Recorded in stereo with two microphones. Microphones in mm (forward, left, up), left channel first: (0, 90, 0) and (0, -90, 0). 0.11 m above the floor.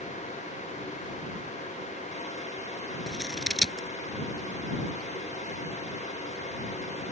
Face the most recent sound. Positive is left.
turn(degrees=0)  # may be behind; listen again after turning